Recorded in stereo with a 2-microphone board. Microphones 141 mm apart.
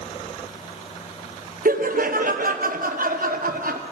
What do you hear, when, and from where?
1.6 s laughter: 70° right (ahead or behind), 0.8 m